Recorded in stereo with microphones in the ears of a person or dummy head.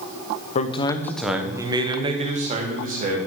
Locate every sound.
0.6 s a man speaking: 40° left (ahead or behind), 1.0 m; by 3.2 s 40° right (ahead or behind), 2.5 m